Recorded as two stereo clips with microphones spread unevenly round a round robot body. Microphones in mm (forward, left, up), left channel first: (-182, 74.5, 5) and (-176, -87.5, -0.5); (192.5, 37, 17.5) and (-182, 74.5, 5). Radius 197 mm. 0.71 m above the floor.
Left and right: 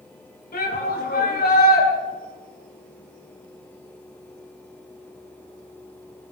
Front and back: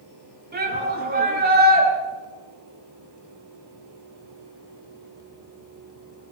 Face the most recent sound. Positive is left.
turn(degrees=110)